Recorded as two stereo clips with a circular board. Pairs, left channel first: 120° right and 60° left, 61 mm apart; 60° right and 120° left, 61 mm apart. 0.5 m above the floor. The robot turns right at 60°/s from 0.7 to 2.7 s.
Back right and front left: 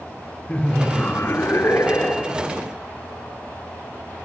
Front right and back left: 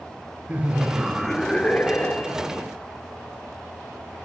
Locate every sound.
0.5 s laughter: straight behind, 0.9 m; by 2.5 s 75° right, 0.9 m